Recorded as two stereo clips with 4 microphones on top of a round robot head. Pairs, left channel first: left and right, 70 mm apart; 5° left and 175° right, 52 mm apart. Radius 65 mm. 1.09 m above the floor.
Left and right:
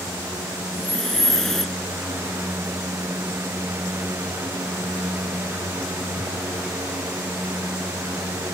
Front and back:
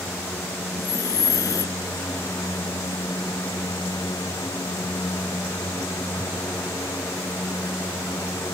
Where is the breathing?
5° left.